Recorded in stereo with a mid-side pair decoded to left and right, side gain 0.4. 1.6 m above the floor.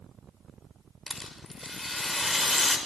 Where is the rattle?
15° left, 6 m.